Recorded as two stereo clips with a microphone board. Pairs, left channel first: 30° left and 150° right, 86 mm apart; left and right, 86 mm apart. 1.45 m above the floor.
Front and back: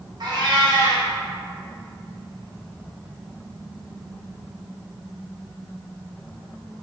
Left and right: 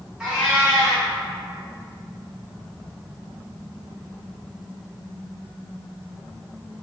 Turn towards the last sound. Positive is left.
turn(degrees=-165)